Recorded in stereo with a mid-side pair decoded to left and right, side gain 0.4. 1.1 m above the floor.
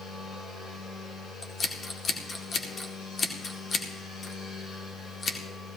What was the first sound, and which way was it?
A machine running, 70° left.